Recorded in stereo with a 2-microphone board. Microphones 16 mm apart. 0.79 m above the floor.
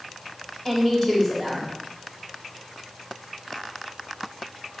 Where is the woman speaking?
15° left (ahead or behind), 2.5 m.